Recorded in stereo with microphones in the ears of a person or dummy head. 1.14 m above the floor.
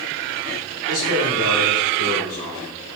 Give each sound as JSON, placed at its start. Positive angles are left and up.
{"t": 0.8, "sound": "a man speaking", "side_deg": 80, "distance_m": 2.5}